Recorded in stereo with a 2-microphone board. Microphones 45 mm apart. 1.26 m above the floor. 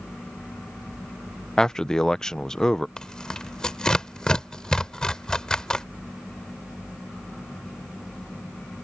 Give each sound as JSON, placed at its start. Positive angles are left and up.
{"t": 1.6, "sound": "a man speaking", "side_deg": 15}
{"t": 3.0, "sound": "tearing paper", "side_deg": 10}